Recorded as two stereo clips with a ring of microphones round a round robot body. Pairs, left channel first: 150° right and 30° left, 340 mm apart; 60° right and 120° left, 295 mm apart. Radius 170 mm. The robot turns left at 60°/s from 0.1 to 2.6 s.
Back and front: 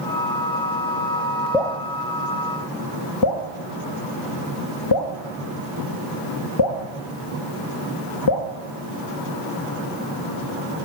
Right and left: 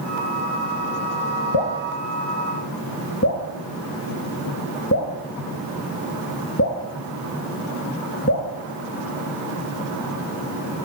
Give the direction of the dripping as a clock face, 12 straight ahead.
2 o'clock.